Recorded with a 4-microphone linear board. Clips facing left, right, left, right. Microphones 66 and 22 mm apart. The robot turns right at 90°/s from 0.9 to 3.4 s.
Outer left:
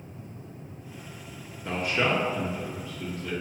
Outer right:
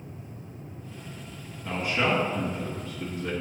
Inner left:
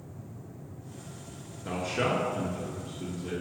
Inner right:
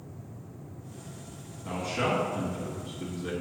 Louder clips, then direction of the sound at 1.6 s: Even, even; 10° right (ahead or behind).